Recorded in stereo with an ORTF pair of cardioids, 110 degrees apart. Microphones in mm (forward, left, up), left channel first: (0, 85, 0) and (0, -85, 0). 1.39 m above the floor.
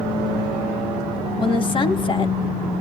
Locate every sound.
1.4 s a woman speaking: 30° left, 1.4 m